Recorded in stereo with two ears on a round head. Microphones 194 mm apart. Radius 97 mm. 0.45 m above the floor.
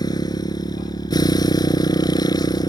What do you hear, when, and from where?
0.0 s a motorcycle: 20° left (ahead or behind)